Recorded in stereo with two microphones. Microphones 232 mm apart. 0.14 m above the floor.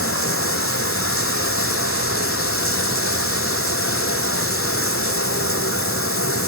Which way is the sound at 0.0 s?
70° left (ahead or behind).